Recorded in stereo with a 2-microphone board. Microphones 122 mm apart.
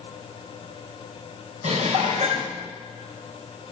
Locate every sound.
1.6 s dishes clattering: 70° right (ahead or behind), 3.5 m